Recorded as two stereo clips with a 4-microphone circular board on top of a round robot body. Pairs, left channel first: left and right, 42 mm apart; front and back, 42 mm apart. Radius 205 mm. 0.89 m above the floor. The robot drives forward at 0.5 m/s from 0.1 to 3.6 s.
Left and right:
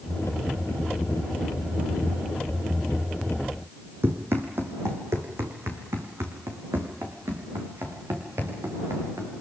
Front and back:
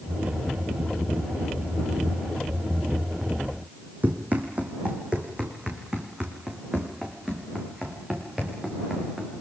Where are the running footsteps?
125° right, 2 m; by 9.3 s 100° right, 5.5 m.